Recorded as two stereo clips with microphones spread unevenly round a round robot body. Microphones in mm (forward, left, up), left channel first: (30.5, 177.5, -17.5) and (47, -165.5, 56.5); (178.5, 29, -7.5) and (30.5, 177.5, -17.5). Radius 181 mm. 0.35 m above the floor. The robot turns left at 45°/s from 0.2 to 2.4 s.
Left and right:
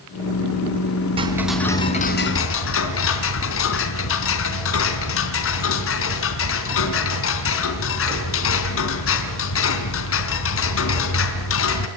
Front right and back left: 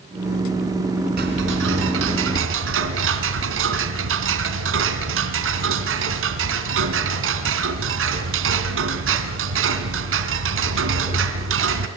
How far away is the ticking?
About 3 m.